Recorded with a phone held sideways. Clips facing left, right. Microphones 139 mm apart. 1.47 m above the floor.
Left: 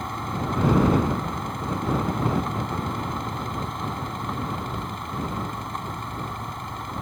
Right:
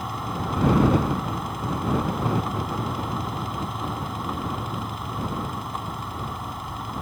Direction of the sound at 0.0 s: 5° right (ahead or behind).